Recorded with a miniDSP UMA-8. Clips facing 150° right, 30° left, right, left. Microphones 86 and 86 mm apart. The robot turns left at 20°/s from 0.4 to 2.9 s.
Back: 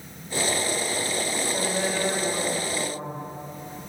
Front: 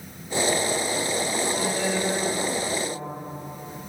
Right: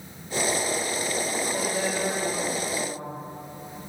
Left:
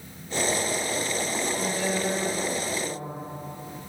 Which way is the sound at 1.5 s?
85° right.